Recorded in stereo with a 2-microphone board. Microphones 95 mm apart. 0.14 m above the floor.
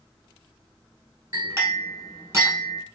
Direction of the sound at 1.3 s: 30° right (ahead or behind).